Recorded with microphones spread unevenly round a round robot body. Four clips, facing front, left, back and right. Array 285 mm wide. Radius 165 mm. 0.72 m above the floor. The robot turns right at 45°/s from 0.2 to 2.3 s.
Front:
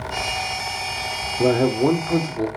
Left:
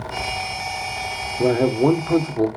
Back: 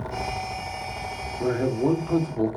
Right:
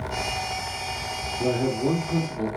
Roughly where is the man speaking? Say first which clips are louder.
Left 7 dB, front 6 dB; ahead left.